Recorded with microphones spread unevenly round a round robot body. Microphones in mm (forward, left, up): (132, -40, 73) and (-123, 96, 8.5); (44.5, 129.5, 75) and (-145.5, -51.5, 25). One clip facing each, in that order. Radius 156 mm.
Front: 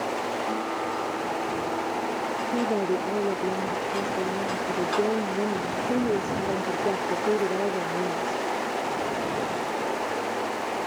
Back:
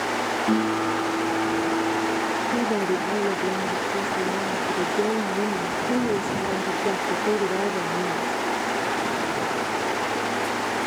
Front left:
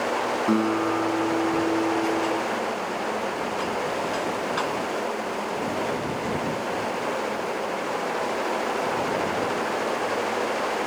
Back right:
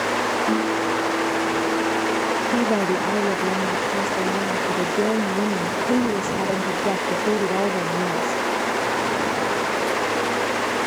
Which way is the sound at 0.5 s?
120° left.